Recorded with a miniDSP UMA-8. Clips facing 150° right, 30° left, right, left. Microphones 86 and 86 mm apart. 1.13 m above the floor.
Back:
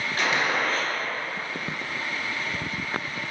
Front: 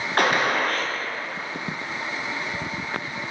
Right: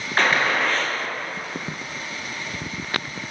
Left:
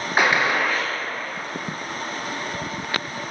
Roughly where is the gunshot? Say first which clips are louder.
Front 4 dB, left 1 dB; ahead.